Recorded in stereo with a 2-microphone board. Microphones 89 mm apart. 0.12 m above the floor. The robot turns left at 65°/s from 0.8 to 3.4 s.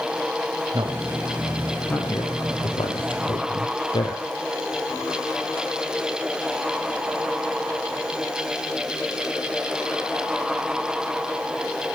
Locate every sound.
0.7 s a man speaking: 50° right (ahead or behind), 3 m; by 4.2 s 60° left (ahead or behind), 3 m